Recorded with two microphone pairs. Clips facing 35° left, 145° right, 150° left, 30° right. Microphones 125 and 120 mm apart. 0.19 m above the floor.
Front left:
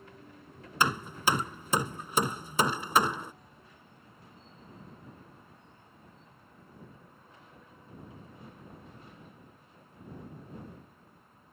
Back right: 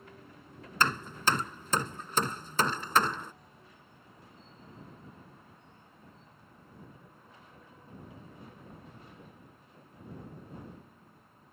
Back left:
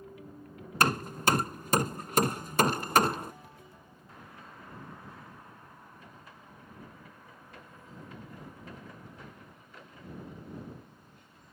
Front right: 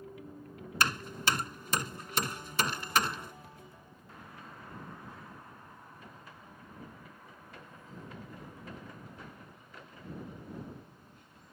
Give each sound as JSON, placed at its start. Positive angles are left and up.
{"t": 0.8, "sound": "hammering", "azimuth_deg": 110}